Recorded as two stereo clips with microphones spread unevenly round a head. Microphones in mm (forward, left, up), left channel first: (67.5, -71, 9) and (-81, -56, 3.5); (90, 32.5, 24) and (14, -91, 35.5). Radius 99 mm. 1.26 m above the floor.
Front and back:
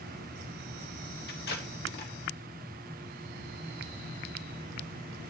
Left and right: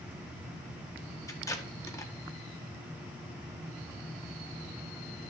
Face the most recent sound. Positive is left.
turn(degrees=-10)